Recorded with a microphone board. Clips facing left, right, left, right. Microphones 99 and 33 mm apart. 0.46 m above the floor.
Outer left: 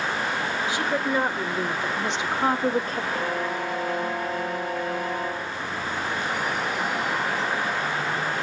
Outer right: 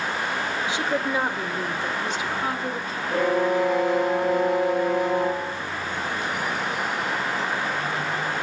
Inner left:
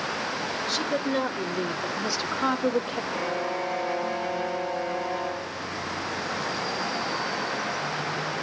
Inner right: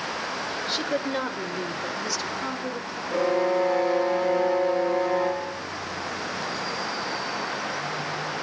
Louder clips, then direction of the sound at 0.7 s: Even, even; 20° right (ahead or behind).